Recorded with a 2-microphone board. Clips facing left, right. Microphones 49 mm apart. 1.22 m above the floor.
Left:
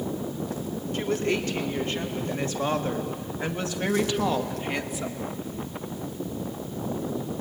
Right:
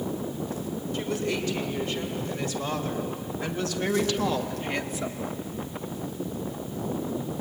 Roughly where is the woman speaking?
Left.